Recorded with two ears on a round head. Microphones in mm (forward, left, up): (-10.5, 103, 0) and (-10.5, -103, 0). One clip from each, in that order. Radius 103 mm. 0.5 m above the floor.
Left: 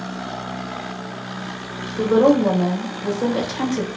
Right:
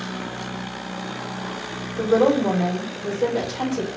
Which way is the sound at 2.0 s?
15° left (ahead or behind).